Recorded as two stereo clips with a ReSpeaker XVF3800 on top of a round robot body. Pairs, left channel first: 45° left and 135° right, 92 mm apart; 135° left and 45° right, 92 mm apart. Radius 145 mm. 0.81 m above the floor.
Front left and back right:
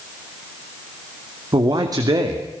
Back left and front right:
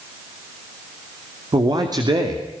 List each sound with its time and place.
1.5 s a man speaking: 90° right, 3 m